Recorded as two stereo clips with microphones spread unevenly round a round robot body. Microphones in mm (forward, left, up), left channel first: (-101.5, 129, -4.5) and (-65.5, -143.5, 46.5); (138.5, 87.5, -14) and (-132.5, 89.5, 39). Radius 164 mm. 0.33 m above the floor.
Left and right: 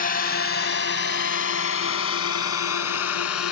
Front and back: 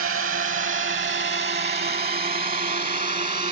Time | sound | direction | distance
0.0 | a drone | 140° left | ?